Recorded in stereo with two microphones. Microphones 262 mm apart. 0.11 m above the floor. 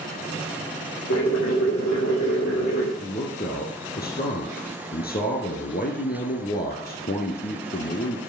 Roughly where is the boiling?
Left.